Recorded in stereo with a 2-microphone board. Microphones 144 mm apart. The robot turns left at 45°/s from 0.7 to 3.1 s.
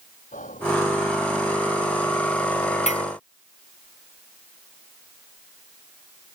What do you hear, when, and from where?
0.3 s whispering: 65° left (ahead or behind)
2.9 s a clink: 55° left (ahead or behind); by 3.0 s 45° left (ahead or behind)